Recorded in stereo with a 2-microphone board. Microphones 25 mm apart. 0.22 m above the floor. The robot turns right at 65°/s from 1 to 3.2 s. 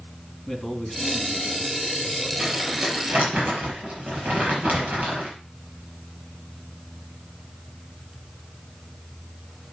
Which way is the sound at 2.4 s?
165° right.